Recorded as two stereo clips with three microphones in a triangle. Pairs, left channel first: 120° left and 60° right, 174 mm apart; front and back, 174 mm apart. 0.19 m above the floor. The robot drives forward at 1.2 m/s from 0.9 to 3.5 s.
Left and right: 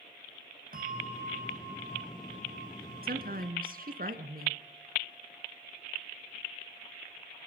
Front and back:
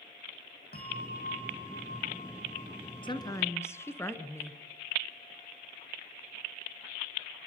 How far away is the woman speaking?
About 2 m.